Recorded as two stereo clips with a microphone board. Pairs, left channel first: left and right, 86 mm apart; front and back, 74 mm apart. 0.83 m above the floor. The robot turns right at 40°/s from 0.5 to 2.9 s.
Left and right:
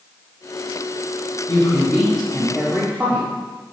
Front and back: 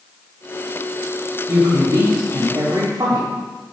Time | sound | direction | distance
1.5 | a woman speaking | 145° left | 2 m